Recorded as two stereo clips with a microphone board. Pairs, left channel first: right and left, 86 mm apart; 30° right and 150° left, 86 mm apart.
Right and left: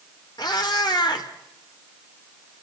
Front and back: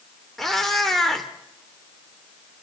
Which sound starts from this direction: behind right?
A cat meowing, at 0.4 s.